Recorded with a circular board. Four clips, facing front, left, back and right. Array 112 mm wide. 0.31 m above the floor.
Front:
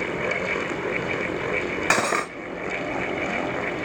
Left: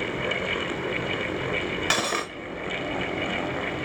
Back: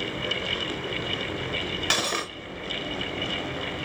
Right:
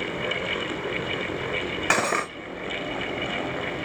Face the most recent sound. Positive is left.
turn(degrees=-30)